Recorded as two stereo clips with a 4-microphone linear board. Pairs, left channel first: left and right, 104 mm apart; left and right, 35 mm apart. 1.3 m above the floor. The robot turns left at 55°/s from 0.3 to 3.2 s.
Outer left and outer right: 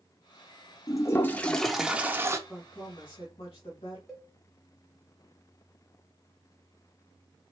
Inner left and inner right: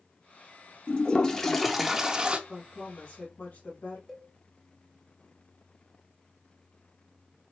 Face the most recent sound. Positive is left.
turn(degrees=5)  # may be behind; listen again after turning